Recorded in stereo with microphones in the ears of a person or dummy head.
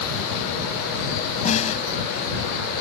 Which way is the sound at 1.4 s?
40° left (ahead or behind).